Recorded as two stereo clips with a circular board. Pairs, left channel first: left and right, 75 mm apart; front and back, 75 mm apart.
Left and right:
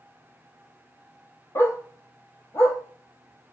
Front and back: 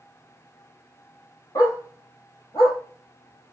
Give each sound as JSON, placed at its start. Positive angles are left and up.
{"t": 1.6, "sound": "a dog barking", "azimuth_deg": 35, "distance_m": 1.0}